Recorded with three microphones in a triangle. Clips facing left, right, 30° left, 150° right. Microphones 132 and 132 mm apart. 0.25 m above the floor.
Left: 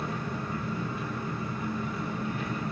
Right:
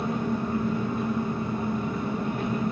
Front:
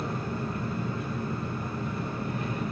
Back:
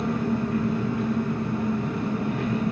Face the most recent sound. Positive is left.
turn(degrees=-135)